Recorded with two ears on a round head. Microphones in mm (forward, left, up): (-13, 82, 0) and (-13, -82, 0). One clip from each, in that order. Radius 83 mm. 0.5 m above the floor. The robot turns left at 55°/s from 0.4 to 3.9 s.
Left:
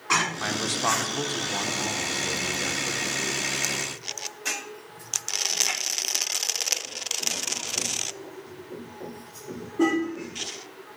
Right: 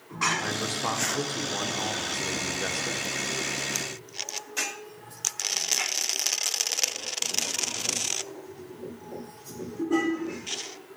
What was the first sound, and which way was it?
A man speaking, 60° left.